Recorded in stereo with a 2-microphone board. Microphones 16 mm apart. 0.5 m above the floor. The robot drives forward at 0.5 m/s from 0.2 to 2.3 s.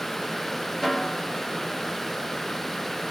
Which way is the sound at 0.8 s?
15° left (ahead or behind).